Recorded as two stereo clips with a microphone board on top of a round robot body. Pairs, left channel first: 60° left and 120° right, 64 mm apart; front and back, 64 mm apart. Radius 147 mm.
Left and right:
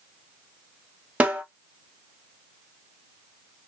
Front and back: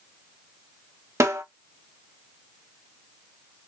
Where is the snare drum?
Straight behind, 1.2 m.